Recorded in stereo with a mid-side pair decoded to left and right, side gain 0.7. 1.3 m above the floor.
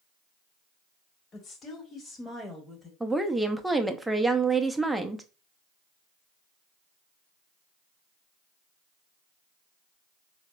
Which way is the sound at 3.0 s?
5° right.